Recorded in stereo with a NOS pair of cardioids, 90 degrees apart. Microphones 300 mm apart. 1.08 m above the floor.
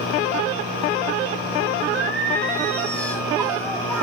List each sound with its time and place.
1.9 s singing: 5° left, 5 m